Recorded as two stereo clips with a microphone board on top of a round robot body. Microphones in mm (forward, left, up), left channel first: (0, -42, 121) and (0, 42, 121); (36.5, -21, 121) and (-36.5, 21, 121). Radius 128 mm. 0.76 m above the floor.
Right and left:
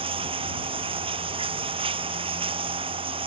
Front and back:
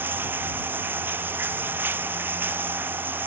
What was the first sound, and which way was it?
Running water, 85° left.